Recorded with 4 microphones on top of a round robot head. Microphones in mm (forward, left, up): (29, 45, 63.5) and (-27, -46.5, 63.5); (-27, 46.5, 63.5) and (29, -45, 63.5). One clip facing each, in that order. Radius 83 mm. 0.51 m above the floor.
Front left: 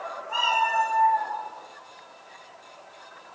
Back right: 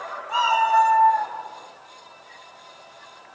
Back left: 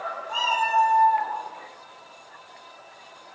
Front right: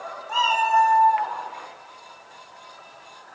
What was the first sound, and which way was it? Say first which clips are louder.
A cat meowing: back right 6 dB, front right 4 dB; 80° right.